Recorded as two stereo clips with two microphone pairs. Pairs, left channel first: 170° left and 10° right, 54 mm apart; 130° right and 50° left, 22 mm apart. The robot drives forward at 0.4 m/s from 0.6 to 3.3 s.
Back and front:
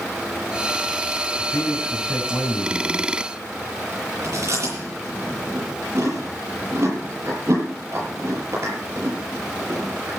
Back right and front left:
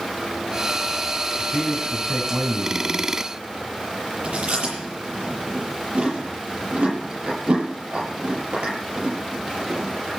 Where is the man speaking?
115° left, 3 m; by 3.1 s 125° left, 3.5 m.